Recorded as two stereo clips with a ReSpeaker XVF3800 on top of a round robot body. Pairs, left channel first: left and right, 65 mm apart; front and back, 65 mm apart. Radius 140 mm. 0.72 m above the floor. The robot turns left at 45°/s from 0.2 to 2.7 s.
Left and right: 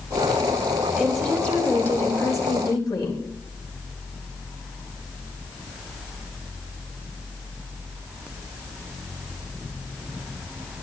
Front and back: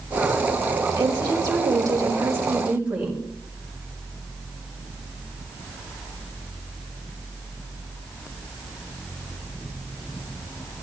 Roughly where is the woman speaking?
Behind.